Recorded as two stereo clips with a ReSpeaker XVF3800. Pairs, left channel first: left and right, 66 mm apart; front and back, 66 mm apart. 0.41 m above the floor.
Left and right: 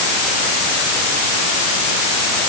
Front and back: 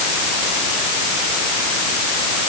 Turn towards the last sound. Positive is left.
No sound to turn to.